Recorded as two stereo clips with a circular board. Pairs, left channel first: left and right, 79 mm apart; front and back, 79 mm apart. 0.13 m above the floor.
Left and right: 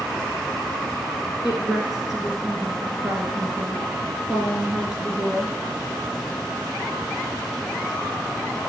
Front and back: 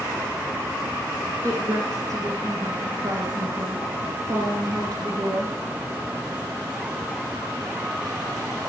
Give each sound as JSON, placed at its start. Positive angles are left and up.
{"t": 1.4, "sound": "a woman speaking", "azimuth_deg": -170, "distance_m": 2.0}